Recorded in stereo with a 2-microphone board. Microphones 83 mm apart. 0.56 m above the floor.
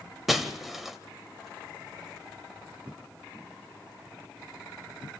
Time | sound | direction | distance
0.3 | breaking glass | 5° right (ahead or behind) | 1.3 m